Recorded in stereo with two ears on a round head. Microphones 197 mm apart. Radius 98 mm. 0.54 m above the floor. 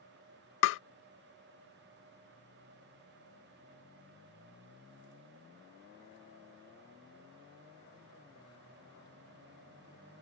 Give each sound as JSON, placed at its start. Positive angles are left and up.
{"t": 0.6, "sound": "tapping", "side_deg": 60}